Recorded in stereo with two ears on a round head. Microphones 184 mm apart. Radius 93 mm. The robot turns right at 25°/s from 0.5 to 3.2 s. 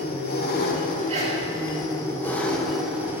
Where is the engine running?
125° left, 1.5 m; by 3.2 s 170° right, 1.5 m.